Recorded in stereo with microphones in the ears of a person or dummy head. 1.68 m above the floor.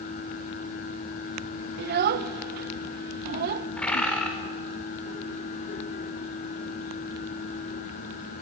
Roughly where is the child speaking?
Right.